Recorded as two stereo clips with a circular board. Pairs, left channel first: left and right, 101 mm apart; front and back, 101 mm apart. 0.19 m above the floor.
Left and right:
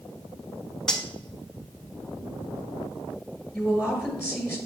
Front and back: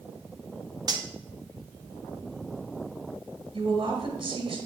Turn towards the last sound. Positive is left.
turn(degrees=-175)